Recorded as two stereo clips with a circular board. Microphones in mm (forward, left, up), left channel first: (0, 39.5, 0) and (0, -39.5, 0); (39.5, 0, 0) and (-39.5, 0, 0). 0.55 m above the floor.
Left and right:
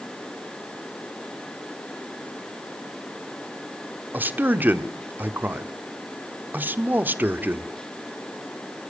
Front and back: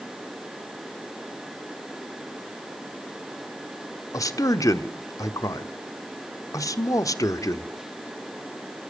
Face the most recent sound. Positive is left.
turn(degrees=-30)